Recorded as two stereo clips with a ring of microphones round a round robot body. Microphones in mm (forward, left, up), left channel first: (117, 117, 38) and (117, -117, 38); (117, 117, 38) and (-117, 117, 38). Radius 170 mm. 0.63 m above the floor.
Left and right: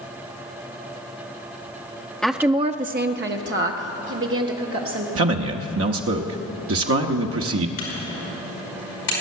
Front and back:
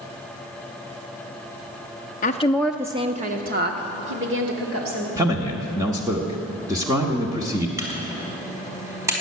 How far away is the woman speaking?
About 0.6 m.